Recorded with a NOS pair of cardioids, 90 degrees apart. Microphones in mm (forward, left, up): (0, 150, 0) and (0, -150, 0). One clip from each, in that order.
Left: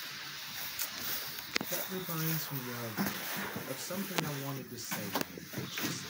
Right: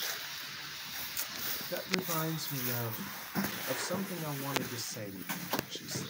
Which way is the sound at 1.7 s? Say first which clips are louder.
Right 4 dB; 20° right.